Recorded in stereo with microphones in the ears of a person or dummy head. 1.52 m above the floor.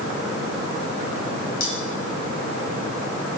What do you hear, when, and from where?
1.6 s cutlery clinking: 80° left, 3 m